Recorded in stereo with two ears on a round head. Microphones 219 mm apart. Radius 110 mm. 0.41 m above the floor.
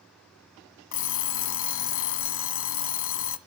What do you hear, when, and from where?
0.9 s an alarm clock: 60° left (ahead or behind), 1.3 m